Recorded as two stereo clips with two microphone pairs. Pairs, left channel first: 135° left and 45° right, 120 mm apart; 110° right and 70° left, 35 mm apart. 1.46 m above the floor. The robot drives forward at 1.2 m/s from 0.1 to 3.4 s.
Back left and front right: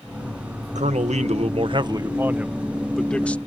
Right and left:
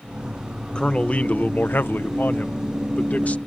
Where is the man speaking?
45° right; by 3.4 s 150° right.